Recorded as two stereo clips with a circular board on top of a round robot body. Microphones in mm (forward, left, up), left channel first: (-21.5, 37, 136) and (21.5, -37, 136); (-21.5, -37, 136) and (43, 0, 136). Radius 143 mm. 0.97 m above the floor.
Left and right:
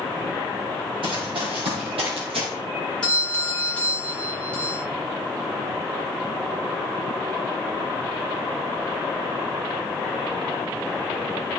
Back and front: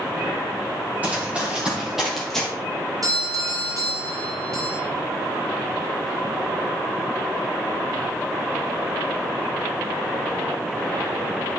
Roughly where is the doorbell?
Ahead left.